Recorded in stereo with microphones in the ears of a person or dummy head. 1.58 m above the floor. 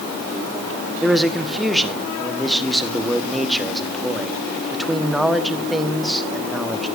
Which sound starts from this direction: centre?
A man speaking, at 1.0 s.